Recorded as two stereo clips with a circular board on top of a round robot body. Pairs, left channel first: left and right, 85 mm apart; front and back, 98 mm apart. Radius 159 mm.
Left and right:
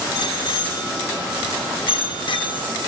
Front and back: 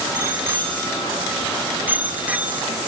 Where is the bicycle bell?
110° left, 4 m; by 2.7 s 105° left, 1.7 m.